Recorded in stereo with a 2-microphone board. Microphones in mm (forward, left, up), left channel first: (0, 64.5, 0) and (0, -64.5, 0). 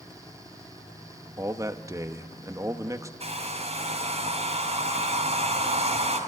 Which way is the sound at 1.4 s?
25° right (ahead or behind).